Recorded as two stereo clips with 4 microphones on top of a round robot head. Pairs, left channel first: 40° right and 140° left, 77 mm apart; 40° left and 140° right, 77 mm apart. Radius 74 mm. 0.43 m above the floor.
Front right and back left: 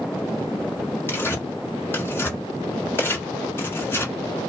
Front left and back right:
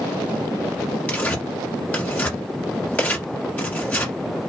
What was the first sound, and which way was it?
Tearing paper, 15° right.